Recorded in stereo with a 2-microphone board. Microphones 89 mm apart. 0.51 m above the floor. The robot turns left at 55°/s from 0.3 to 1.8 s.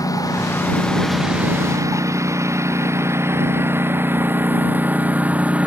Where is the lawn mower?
40° left (ahead or behind); by 5.7 s 15° right (ahead or behind).